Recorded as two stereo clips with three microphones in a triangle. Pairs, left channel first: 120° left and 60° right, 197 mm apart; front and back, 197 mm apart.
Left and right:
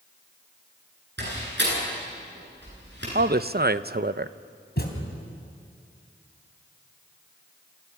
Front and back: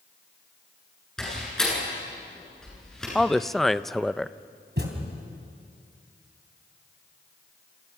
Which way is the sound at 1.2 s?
85° right.